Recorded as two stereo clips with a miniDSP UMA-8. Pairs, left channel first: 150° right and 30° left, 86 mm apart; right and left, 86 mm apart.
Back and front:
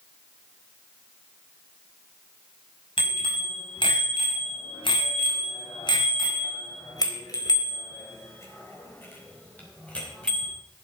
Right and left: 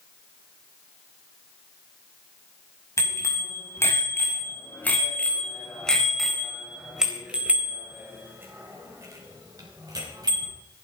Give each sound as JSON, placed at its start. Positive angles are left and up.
{"t": 3.0, "sound": "a bicycle bell", "azimuth_deg": -145, "distance_m": 5.5}